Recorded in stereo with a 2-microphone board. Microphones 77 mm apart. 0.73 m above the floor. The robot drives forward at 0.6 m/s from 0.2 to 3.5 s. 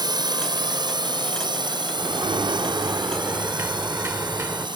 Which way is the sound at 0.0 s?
65° right (ahead or behind).